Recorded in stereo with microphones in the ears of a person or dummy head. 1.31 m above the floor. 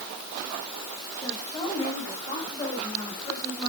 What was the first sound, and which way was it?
A woman speaking, 5° left (ahead or behind).